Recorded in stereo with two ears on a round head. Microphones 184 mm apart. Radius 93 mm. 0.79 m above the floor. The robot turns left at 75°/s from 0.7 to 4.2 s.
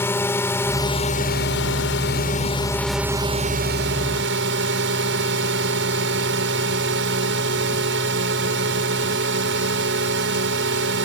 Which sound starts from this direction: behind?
A drone, at 0.0 s.